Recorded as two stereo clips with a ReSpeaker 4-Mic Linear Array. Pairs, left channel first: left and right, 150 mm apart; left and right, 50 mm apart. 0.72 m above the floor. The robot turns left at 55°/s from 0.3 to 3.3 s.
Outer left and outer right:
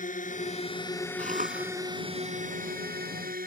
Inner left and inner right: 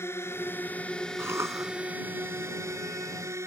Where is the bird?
I don't hear a bird.